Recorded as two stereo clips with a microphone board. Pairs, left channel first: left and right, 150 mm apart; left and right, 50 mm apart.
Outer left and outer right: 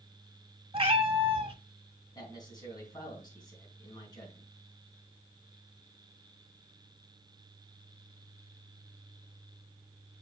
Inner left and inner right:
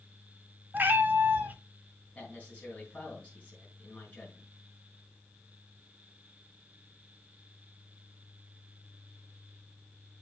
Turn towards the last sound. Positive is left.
turn(degrees=25)  # may be behind; listen again after turning